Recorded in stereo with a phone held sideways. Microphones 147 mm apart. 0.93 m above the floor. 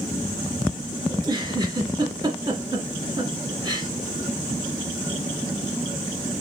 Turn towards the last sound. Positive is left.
turn(degrees=-30)  # may be behind; listen again after turning